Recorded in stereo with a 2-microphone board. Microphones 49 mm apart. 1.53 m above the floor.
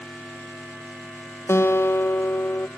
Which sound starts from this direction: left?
A guitar, at 1.5 s.